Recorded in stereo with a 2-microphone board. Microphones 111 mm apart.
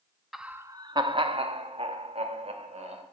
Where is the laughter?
Centre (ahead or behind), 0.7 m; by 3.0 s 75° right (ahead or behind), 3 m.